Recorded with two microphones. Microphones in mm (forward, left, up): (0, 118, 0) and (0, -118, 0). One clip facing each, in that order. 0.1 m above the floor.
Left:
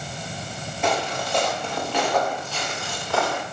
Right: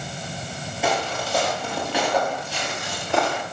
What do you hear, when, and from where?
0.8 s footsteps: 5° right (ahead or behind), 6 m; by 3.4 s 20° right (ahead or behind), 4 m